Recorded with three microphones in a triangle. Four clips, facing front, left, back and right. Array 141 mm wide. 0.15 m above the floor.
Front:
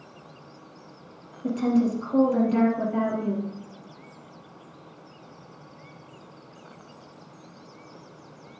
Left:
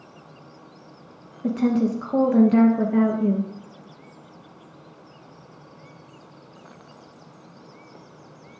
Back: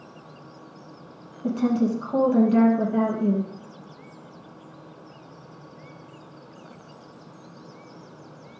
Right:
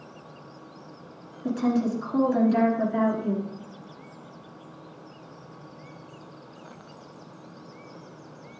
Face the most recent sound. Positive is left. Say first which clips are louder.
# left 3 dB, even
turn(degrees=95)